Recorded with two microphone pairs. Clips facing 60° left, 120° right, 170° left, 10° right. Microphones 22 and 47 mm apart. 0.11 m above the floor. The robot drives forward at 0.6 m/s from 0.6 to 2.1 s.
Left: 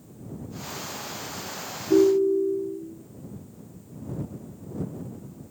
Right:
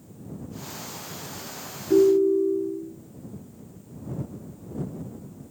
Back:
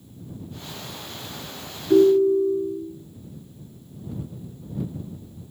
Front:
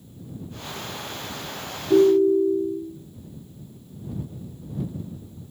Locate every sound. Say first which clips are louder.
1.9 s a ringtone: right 1 dB, even; 170° right, 0.6 m; by 2.8 s 175° right, 0.7 m